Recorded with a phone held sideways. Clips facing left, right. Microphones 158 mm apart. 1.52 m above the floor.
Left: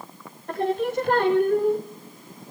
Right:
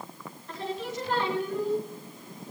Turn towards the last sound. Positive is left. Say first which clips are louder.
# left 10 dB
turn(degrees=60)  # may be behind; listen again after turning